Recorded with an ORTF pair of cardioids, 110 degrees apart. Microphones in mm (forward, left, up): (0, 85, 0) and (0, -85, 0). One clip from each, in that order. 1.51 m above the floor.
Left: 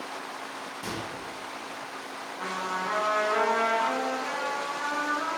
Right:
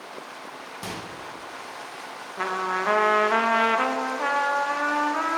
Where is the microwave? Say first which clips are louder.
Right 1 dB; 40° right, 1.6 m.